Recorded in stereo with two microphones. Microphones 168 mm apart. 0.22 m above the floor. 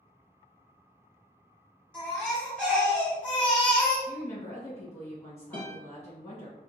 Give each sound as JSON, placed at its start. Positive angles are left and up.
{"t": 1.9, "sound": "a baby crying", "side_deg": 5, "distance_m": 1.7}
{"t": 4.1, "sound": "a woman speaking", "side_deg": 15, "distance_m": 1.9}
{"t": 5.5, "sound": "a guitar", "side_deg": 10, "distance_m": 1.6}